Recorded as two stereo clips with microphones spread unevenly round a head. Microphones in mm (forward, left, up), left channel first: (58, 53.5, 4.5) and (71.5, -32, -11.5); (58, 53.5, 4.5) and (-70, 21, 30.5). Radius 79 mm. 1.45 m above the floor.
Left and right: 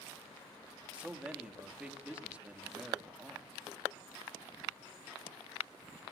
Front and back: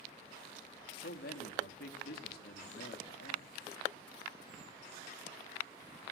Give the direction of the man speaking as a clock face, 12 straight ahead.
12 o'clock.